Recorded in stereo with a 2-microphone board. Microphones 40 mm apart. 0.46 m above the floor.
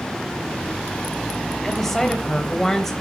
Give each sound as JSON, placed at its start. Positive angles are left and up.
{"t": 1.6, "sound": "a woman speaking", "side_deg": 10, "distance_m": 2.5}